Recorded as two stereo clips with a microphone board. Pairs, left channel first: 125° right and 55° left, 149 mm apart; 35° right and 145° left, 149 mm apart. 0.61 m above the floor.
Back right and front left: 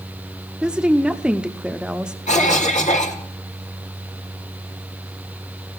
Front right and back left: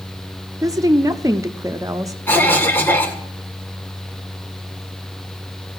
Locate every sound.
0.6 s a woman speaking: 130° left, 0.7 m
2.3 s a cough: 110° right, 1.8 m